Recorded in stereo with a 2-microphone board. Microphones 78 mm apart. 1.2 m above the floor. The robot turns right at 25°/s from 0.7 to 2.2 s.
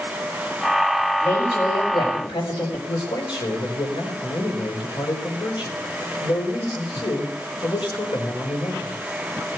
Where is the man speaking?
90° left, 4.5 m.